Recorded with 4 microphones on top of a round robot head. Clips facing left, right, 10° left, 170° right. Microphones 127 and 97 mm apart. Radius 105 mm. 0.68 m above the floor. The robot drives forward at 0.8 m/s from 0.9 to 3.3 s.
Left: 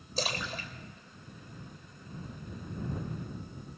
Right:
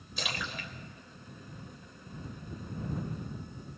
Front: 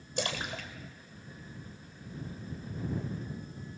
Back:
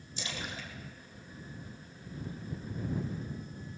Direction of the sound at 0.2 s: 35° left.